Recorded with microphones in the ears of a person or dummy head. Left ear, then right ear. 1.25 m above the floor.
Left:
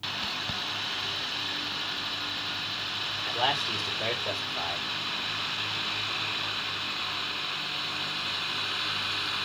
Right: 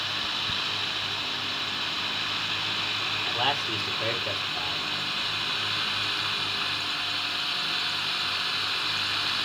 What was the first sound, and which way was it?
A man speaking, 10° left (ahead or behind).